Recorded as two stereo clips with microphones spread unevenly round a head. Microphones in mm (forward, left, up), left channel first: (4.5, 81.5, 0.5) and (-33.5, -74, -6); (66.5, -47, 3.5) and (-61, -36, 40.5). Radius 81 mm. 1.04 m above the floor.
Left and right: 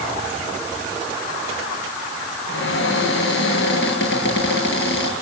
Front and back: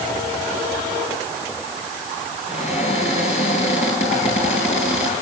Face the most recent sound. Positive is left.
turn(degrees=45)